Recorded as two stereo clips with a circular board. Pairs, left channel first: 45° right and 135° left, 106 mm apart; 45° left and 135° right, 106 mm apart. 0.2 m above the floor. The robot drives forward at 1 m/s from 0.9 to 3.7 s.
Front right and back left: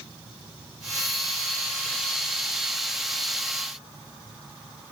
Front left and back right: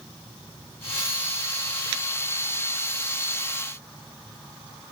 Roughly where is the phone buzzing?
I don't hear a phone buzzing.